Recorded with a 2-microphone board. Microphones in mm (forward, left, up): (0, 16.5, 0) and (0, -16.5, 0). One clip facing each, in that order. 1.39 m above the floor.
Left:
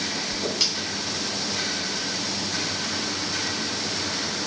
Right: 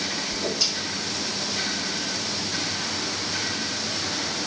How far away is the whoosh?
About 1.1 m.